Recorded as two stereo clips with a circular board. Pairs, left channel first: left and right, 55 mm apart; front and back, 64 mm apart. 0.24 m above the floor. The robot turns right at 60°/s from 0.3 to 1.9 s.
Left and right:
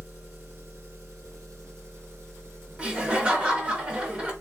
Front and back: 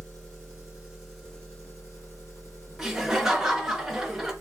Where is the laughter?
110° right, 1.1 m.